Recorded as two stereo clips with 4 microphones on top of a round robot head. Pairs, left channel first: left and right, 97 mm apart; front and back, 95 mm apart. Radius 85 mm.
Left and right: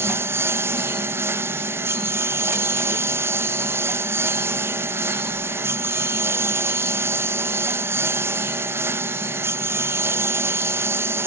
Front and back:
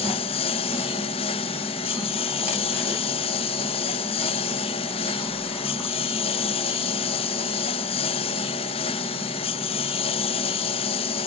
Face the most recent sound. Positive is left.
turn(degrees=-25)